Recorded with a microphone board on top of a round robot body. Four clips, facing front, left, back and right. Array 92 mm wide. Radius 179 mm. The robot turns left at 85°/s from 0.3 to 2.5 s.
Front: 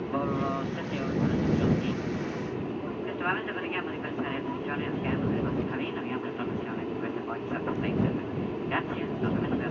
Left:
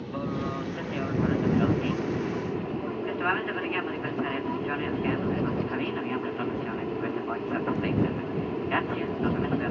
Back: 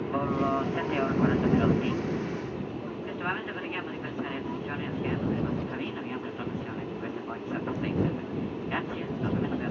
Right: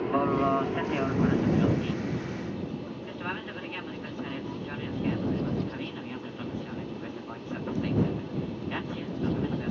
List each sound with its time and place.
0.0 s an aircraft: 95° right; by 9.7 s 75° left